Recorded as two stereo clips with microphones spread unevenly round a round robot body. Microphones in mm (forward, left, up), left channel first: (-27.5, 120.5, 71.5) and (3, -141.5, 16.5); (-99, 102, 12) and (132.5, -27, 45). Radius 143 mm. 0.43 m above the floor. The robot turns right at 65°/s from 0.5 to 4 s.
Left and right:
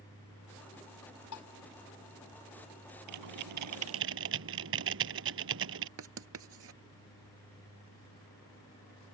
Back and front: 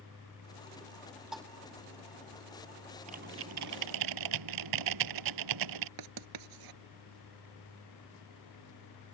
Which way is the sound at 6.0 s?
40° right.